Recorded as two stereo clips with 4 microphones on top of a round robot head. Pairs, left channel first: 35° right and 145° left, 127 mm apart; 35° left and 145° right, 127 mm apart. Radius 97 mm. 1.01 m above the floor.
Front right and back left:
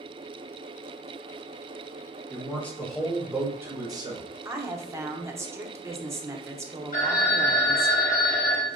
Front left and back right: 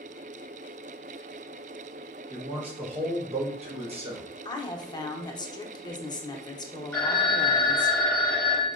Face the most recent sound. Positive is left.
turn(degrees=-40)